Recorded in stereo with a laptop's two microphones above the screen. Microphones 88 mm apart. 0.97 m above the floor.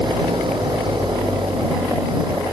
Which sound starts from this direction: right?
An engine running, at 0.0 s.